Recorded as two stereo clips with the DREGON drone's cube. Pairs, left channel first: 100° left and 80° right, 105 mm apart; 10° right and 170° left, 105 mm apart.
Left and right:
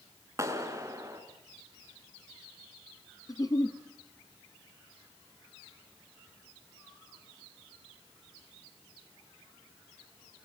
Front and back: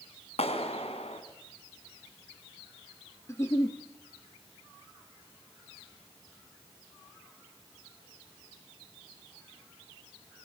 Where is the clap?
20° right, 3.5 m.